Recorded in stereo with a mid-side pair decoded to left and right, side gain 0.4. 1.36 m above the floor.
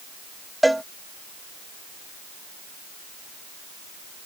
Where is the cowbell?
5° right.